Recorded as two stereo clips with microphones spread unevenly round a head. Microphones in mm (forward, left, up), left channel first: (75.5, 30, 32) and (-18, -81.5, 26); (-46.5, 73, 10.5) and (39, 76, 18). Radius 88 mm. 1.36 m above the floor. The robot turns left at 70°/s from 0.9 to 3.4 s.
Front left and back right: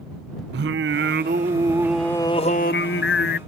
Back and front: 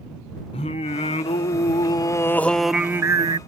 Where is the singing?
145° right; by 3.4 s 40° left.